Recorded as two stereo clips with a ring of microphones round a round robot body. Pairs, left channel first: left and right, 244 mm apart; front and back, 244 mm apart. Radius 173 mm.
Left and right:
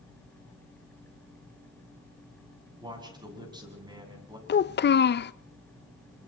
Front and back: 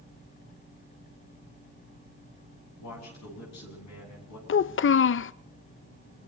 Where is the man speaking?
20° right, 8 m.